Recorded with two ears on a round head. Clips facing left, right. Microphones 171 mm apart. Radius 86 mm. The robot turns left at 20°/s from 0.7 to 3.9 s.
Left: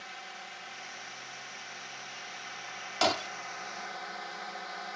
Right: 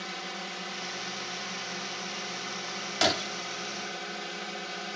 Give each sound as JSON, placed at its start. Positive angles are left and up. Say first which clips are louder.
{"t": 0.0, "sound": "a drone", "louder": "right 8 dB", "azimuth_deg": -75}
{"t": 3.0, "sound": "breaking glass", "louder": "right 1 dB", "side_deg": -15}